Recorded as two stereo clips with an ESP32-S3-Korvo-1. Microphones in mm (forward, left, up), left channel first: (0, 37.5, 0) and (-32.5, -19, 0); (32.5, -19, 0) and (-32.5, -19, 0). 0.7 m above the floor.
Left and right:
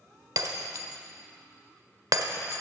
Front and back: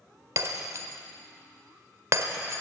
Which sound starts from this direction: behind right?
Breaking glass, at 0.4 s.